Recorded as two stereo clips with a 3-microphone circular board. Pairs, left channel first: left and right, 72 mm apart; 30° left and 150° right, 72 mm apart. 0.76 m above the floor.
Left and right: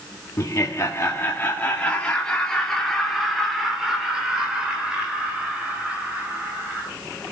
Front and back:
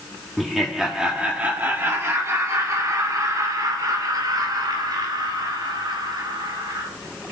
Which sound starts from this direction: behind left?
Laughter, at 0.4 s.